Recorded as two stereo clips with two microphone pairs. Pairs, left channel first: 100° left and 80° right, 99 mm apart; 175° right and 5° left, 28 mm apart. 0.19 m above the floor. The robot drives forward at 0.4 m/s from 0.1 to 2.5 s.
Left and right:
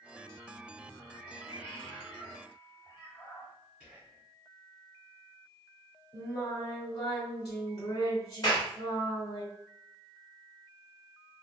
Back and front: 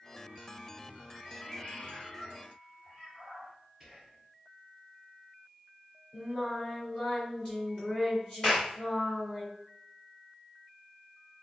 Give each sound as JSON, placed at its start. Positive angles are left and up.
{"t": 1.1, "sound": "a cat meowing", "azimuth_deg": 125, "distance_m": 1.3}
{"t": 3.8, "sound": "whispering", "azimuth_deg": -125, "distance_m": 1.6}
{"t": 6.1, "sound": "singing", "azimuth_deg": 145, "distance_m": 2.0}
{"t": 8.4, "sound": "a clap", "azimuth_deg": 145, "distance_m": 1.8}